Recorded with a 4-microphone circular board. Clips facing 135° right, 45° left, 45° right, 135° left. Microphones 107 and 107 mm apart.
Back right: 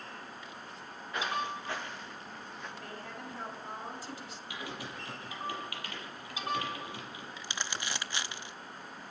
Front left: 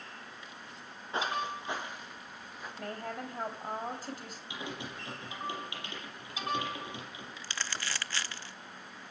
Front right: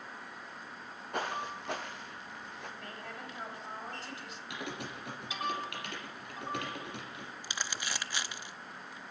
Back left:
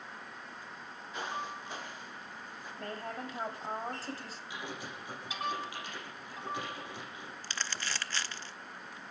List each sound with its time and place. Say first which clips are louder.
1.1 s footsteps: front left 1 dB, front right 3 dB; 15° right, 3 m; by 2.7 s 40° right, 4.5 m
2.8 s a woman speaking: front left 5 dB, back left 5 dB; 85° left, 3.5 m
4.5 s typing on a keyboard: front left 1 dB, front right 2 dB; 20° right, 5.5 m
7.4 s crumpling: even, even; 100° right, 0.5 m